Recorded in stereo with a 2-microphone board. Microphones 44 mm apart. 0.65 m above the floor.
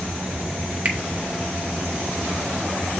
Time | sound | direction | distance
0.8 | a finger snap | 35° right (ahead or behind) | 1.2 m